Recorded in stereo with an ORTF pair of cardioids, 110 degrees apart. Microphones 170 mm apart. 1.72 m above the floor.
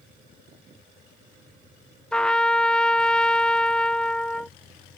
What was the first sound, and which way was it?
A trumpet, 5° left.